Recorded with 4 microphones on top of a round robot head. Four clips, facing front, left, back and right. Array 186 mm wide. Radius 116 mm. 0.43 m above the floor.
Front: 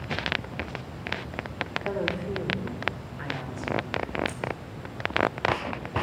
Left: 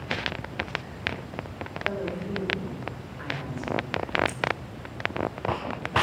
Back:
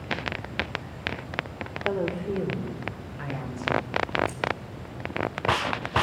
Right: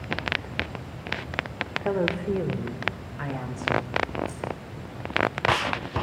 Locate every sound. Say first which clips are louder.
1.9 s a woman speaking: right 6 dB, back 3 dB; 115° right, 1.8 m
4.3 s keys jangling: left 3 dB, back 3 dB; 115° left, 2.5 m